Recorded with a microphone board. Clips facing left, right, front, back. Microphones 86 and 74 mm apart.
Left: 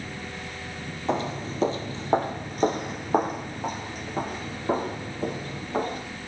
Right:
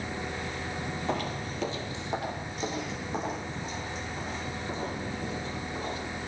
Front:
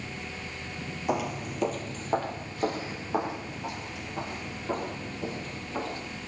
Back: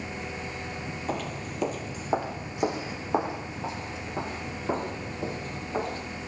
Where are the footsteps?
55° left, 1.8 m; by 6.0 s 120° left, 7 m.